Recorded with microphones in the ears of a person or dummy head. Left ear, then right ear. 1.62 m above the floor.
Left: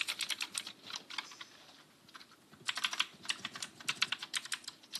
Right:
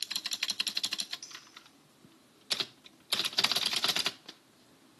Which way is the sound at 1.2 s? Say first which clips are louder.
Right 4 dB; 65° right (ahead or behind).